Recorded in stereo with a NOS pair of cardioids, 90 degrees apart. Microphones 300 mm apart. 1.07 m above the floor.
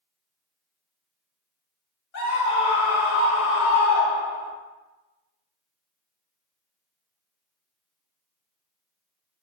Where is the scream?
70° left, 1.1 m.